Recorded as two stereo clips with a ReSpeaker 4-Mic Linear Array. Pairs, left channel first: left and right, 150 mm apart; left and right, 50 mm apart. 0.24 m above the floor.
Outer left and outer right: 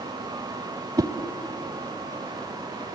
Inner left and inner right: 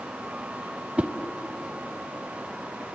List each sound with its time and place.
1.0 s a whoosh: 25° right (ahead or behind), 0.6 m